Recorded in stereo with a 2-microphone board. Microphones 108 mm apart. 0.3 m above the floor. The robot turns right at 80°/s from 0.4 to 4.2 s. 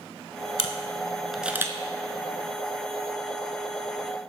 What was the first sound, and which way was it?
A camera shutter, 60° left (ahead or behind).